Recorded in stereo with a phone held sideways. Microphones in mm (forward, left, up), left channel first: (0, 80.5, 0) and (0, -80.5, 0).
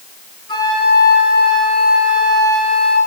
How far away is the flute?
About 7.5 m.